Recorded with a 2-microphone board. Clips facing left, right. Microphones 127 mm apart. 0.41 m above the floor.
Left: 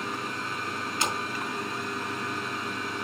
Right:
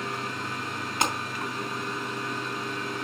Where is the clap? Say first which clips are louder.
Right 3 dB; 65° right (ahead or behind), 2.5 m.